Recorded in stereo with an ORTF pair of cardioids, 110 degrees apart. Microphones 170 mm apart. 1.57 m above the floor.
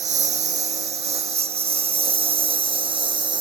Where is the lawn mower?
40° right; by 3.4 s 25° right.